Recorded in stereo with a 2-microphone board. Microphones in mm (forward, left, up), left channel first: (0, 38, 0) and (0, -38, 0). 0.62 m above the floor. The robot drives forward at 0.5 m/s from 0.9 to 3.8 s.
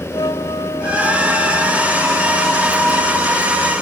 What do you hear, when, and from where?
0.1 s a flute: 75° left (ahead or behind); by 3.4 s 70° left (ahead or behind)